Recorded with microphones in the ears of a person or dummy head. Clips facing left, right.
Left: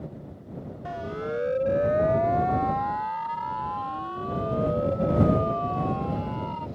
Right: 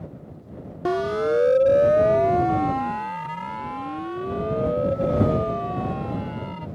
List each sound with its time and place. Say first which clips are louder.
0.8 s a siren: right 11 dB; 75° right (ahead or behind); by 6.7 s 25° right (ahead or behind)